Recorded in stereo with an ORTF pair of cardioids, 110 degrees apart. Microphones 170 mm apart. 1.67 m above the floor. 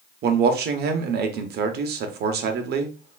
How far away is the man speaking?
About 0.9 m.